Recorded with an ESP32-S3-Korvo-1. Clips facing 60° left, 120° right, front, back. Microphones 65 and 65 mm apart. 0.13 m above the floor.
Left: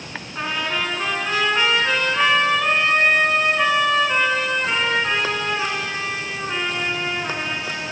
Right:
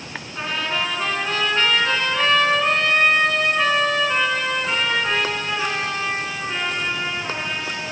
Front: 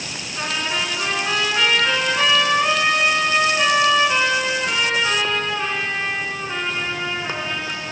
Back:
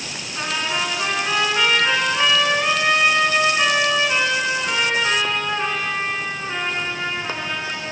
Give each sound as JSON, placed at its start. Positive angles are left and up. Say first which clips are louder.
{"t": 0.3, "sound": "a trumpet", "louder": "even, back 1 dB", "azimuth_deg": 110, "distance_m": 0.9}